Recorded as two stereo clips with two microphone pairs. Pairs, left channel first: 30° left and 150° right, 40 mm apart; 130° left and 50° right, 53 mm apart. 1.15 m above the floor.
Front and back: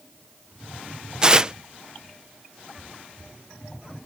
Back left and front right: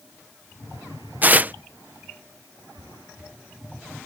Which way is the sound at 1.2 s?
95° right.